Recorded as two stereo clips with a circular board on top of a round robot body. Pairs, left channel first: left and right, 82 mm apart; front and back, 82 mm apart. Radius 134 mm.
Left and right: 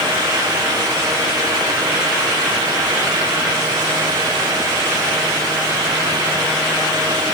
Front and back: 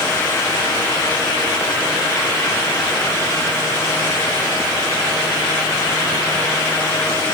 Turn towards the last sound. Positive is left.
No sound to turn to.